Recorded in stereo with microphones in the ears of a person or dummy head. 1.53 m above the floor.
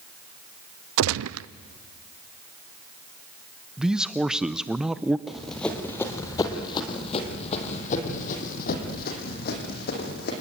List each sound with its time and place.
1.0 s a gunshot: 85° right, 0.6 m
3.8 s a man speaking: 5° left (ahead or behind), 0.5 m
5.3 s running footsteps: 10° right (ahead or behind), 3 m; by 10.3 s 50° left (ahead or behind), 5.5 m